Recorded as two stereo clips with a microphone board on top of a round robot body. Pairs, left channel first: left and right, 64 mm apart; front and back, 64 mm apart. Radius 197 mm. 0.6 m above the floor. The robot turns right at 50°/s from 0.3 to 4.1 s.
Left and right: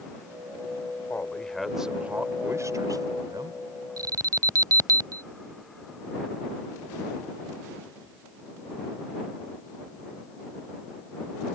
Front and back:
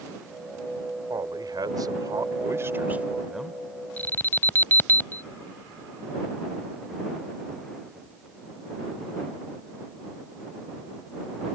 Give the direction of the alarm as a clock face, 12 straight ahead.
2 o'clock.